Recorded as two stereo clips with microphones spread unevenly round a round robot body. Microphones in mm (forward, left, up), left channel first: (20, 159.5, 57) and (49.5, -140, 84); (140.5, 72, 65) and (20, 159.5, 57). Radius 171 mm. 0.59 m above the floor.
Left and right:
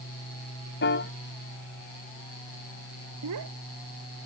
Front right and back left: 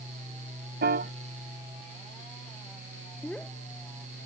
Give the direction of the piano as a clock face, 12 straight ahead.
7 o'clock.